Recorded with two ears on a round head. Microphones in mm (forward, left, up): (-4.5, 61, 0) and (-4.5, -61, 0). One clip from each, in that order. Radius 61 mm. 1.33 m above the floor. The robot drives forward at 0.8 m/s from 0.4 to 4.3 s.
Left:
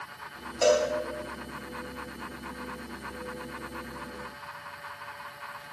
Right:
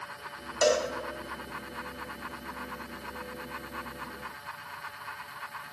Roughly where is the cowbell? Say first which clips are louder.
Left 2 dB; right.